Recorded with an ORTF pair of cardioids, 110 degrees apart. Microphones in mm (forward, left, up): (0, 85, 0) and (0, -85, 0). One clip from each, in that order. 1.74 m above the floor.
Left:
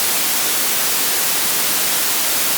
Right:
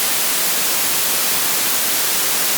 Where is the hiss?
No hiss in this recording.